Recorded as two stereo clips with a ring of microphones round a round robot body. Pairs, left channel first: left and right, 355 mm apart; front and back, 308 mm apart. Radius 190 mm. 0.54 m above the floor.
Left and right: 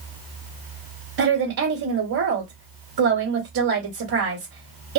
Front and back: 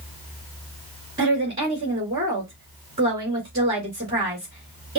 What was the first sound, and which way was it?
A woman speaking, 115° right.